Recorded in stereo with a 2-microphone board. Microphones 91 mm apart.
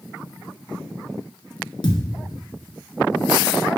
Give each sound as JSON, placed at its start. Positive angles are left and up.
{"t": 1.8, "sound": "a thud", "side_deg": 60, "distance_m": 1.1}